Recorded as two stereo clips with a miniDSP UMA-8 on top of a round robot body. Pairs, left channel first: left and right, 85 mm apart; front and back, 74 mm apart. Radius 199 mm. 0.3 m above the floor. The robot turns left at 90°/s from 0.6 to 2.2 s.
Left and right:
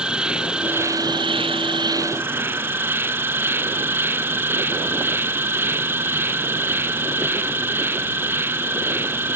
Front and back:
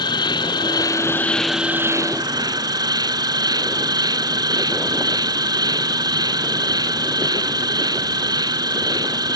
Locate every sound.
0.0 s an insect: 10° right; by 9.4 s 155° right